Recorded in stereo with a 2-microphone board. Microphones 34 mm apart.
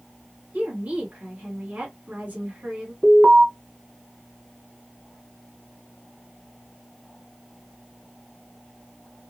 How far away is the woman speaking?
About 1.5 m.